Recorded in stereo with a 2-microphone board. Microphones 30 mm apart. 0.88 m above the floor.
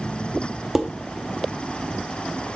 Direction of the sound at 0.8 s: 10° right (ahead or behind).